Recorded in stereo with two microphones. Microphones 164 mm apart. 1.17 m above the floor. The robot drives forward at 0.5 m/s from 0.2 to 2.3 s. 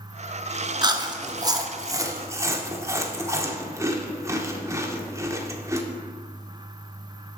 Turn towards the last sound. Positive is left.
turn(degrees=-15)  # may be behind; listen again after turning